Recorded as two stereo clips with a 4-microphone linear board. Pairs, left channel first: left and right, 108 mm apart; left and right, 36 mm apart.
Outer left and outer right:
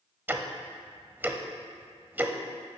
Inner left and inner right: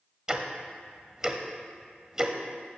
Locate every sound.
0.3 s ticking: 20° right (ahead or behind), 0.9 m